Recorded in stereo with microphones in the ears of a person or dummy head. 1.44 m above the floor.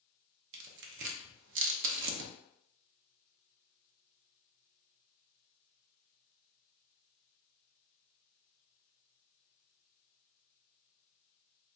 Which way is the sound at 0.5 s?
70° right (ahead or behind).